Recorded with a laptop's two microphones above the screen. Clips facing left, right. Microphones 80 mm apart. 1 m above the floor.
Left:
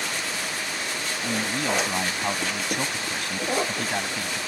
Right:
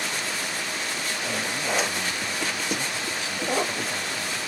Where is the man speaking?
55° left (ahead or behind).